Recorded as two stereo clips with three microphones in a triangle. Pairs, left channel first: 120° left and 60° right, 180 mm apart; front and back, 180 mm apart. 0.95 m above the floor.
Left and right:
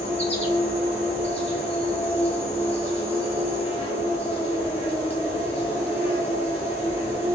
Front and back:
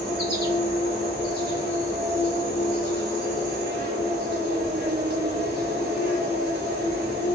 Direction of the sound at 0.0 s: 170° left.